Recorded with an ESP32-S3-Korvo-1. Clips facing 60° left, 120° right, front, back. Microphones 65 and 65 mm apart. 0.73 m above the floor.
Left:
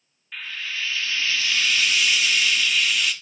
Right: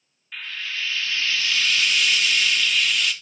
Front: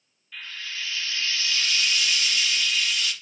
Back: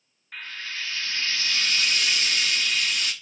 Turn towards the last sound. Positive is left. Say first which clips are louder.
# even, back 1 dB
turn(degrees=145)